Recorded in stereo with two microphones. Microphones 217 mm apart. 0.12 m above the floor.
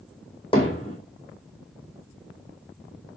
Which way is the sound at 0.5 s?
25° left (ahead or behind).